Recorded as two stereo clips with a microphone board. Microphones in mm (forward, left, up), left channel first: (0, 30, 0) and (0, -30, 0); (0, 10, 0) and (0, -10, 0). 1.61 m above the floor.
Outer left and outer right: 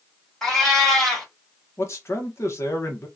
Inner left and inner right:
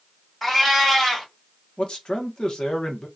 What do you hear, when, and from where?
0.4 s a cat meowing: 10° left (ahead or behind), 2.0 m
1.8 s a man speaking: 50° left (ahead or behind), 1.2 m